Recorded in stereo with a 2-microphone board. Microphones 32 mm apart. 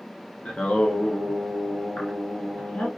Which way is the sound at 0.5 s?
45° left (ahead or behind).